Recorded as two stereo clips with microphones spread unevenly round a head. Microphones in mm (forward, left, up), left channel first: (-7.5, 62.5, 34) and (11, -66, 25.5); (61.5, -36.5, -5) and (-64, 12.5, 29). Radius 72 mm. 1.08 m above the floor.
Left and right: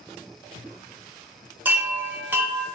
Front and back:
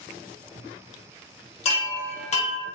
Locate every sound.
1.6 s a chime: 10° right, 0.7 m